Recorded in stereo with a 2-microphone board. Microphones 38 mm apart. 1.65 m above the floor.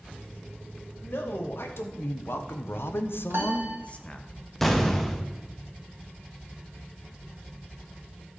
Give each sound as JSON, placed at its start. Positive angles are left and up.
{"t": 1.0, "sound": "a man speaking", "side_deg": 70, "distance_m": 1.9}
{"t": 3.3, "sound": "a piano", "side_deg": -80, "distance_m": 1.6}
{"t": 4.6, "sound": "an explosion", "side_deg": 5, "distance_m": 1.0}